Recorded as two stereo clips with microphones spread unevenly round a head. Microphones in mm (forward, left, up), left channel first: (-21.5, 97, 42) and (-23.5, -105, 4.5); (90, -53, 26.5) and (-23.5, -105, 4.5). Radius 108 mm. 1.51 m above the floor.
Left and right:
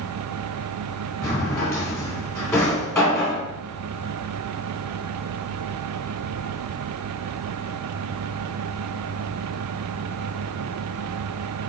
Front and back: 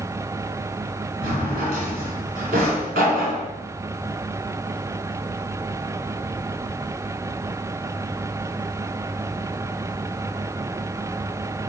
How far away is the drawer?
About 2.5 m.